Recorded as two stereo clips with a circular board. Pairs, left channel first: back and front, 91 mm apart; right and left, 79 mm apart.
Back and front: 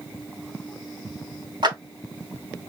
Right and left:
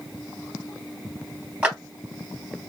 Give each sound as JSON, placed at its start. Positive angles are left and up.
{"t": 1.6, "sound": "a clap", "azimuth_deg": 25, "distance_m": 2.0}